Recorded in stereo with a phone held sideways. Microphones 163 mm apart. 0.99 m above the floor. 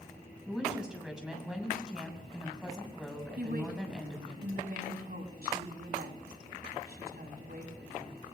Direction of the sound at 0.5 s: 5° right (ahead or behind).